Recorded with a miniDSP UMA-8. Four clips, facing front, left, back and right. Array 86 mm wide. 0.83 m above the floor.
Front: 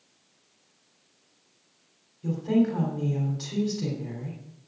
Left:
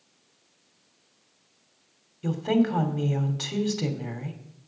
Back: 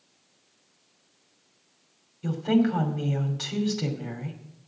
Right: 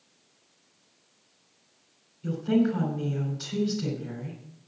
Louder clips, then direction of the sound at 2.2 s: Left 1 dB, back 1 dB; 120° left.